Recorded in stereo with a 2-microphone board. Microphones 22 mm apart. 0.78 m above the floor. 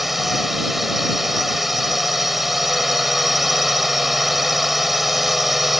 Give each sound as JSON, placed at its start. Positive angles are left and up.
{"t": 0.0, "sound": "a drone", "side_deg": -5}